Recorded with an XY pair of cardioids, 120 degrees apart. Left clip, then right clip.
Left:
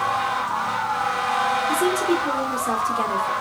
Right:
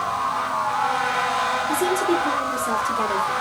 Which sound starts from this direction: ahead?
A woman speaking, at 1.7 s.